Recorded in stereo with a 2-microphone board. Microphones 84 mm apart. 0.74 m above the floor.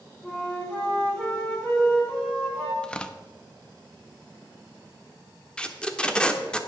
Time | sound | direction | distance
0.2 | a flute | 15° left (ahead or behind) | 6 m
2.8 | tearing paper | 10° left (ahead or behind) | 0.8 m
5.6 | tape being pulled | 10° left (ahead or behind) | 1.1 m